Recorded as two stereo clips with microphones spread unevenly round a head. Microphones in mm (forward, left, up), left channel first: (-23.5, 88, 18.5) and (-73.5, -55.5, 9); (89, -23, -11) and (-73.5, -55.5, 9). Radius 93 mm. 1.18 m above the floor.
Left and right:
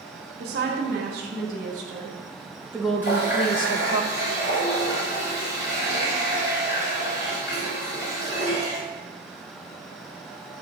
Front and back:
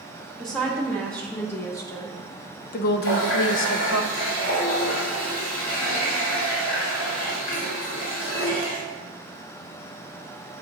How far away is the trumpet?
No trumpet in this recording.